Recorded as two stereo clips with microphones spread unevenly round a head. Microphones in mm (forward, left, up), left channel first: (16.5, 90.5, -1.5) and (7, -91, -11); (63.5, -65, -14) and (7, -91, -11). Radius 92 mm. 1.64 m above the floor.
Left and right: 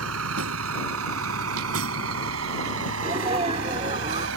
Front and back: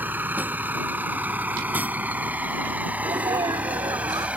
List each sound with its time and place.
0.0 s a vehicle: 95° right; by 4.4 s 90° right
3.0 s a sneeze: 155° right